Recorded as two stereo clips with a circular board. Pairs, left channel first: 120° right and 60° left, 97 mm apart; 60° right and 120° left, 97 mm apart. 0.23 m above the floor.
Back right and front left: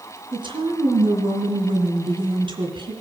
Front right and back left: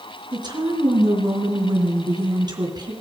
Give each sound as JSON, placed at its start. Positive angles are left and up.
{"t": 0.3, "sound": "a woman speaking", "azimuth_deg": 85, "distance_m": 3.0}